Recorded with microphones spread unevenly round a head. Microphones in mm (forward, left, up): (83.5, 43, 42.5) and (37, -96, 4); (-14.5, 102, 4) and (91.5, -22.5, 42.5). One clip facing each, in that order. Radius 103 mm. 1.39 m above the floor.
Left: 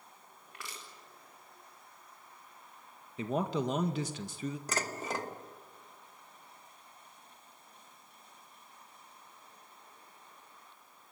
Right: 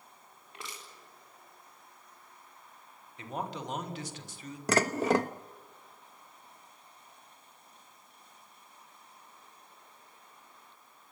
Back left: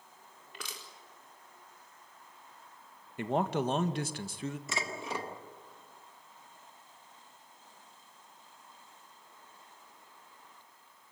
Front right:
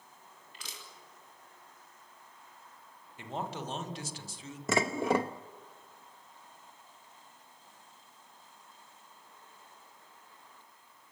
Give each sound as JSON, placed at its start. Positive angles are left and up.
{"t": 0.5, "sound": "crushing", "azimuth_deg": 175, "distance_m": 4.0}
{"t": 3.2, "sound": "a man speaking", "azimuth_deg": 105, "distance_m": 1.9}
{"t": 4.7, "sound": "dishes clattering", "azimuth_deg": -80, "distance_m": 1.0}